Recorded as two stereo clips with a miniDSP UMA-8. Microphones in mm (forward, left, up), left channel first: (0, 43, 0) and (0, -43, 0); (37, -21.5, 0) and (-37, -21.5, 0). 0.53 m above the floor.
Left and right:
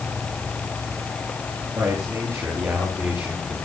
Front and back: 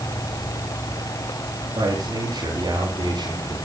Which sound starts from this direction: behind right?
A man speaking, at 1.8 s.